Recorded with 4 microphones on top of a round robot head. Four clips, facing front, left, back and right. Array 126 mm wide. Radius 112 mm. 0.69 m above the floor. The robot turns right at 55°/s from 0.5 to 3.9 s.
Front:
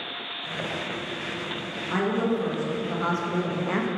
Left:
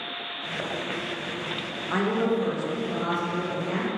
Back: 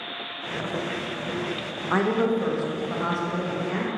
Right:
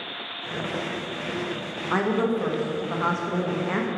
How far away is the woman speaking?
About 0.7 m.